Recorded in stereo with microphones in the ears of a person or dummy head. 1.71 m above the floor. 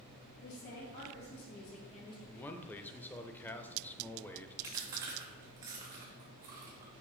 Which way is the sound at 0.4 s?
55° left (ahead or behind).